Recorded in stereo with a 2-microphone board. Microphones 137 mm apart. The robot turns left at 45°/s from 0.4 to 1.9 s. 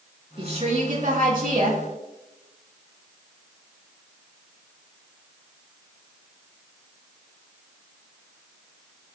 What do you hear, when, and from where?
0.4 s a woman speaking: 45° right, 3 m; by 1.8 s 105° right, 3 m